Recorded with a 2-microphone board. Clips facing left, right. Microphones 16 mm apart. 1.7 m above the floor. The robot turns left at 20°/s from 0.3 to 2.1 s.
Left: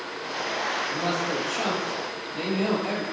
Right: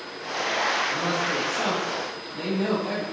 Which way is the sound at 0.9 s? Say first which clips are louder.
Right 1 dB; 80° left.